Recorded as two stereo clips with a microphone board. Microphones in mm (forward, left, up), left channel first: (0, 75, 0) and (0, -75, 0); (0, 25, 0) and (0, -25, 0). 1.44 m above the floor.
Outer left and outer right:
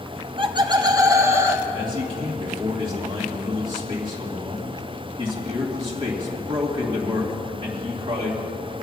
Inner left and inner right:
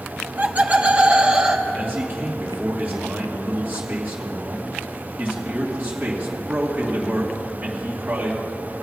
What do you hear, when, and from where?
0.2 s laughter: 40° right (ahead or behind), 0.9 m; by 1.6 s 15° right (ahead or behind), 1.5 m
1.7 s a man speaking: 35° right (ahead or behind), 2.5 m